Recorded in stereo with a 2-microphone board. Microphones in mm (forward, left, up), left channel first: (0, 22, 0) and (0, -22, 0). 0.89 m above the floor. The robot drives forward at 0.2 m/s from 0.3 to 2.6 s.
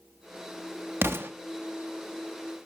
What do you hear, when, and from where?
1.0 s an explosion: 55° right (ahead or behind), 0.9 m; by 1.3 s 60° right (ahead or behind), 0.9 m